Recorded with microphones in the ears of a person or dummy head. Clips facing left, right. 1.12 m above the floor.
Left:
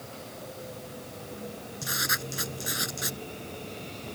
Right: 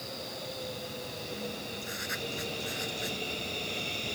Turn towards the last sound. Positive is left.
turn(degrees=80)